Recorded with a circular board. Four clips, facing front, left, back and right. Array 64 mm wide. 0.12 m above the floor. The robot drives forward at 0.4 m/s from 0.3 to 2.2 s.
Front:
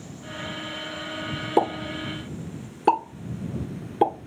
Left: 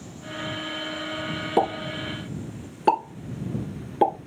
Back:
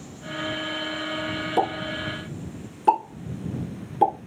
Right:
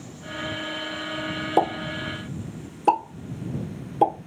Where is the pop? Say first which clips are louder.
Right 1 dB, front 3 dB; 50° left, 1.1 m; by 4.1 s 70° left, 1.0 m.